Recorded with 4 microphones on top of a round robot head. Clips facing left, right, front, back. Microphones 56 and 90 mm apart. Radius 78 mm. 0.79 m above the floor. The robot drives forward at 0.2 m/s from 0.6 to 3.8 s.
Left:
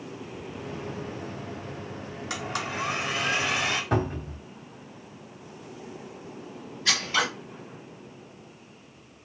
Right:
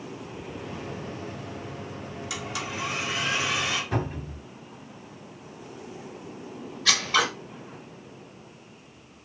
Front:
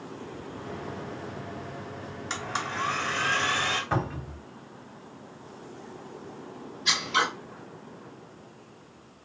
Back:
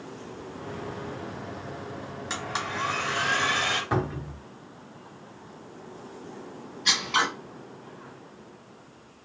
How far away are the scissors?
About 1.2 m.